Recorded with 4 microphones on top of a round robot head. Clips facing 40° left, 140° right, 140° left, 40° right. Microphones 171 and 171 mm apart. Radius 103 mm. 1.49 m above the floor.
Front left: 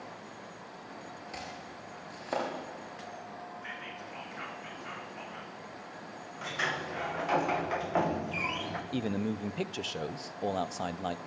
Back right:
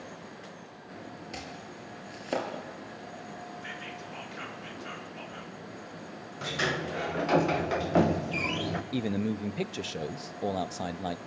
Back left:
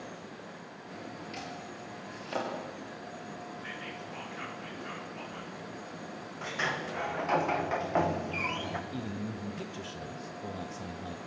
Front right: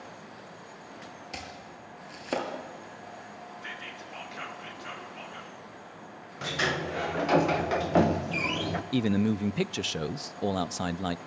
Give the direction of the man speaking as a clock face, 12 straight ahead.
2 o'clock.